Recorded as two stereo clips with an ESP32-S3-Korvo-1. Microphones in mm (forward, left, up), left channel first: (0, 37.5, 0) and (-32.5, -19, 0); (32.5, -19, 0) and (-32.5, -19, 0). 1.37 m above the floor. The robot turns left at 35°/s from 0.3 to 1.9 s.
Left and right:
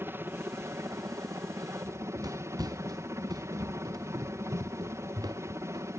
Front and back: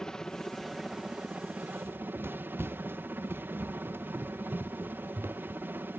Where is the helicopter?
80° right; by 6.0 s 135° right.